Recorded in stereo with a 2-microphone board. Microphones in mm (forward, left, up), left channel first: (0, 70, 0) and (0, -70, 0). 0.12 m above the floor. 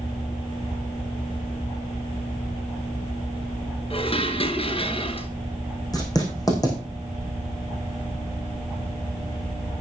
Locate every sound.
3.9 s dishes clattering: 45° left (ahead or behind), 1.3 m
5.9 s writing: 25° left (ahead or behind), 4.5 m